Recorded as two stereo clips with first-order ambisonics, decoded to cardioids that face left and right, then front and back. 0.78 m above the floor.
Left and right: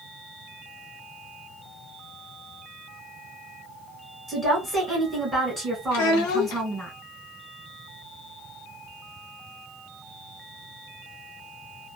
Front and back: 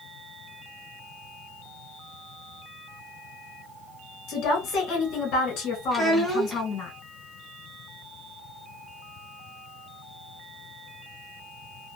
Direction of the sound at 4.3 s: 10° right.